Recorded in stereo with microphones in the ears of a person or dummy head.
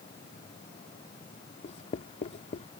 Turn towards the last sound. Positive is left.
turn(degrees=30)  # may be behind; listen again after turning